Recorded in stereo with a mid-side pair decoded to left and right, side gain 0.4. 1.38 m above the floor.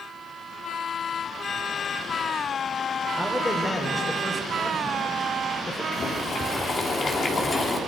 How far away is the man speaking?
About 4 m.